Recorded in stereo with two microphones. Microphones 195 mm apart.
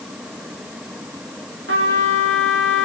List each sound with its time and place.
1.7 s a trumpet: 85° right, 2.5 m